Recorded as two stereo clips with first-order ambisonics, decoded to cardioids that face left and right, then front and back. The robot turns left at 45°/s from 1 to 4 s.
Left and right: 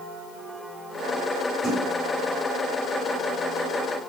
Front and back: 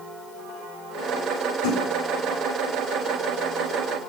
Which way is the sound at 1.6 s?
Straight ahead.